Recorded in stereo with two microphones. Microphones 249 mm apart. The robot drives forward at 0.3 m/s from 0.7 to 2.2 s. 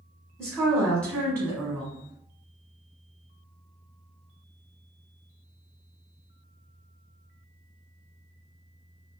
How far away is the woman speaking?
About 1.3 m.